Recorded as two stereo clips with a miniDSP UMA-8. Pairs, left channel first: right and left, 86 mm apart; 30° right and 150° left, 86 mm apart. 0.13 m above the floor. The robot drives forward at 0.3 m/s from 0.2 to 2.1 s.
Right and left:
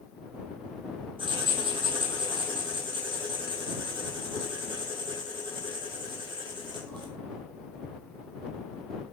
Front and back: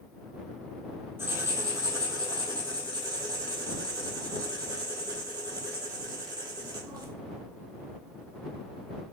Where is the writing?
85° left, 0.7 m; by 7.1 s 110° left, 0.7 m.